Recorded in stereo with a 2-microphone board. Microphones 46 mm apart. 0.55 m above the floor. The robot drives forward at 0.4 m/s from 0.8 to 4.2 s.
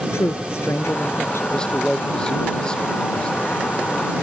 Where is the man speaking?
20° left (ahead or behind).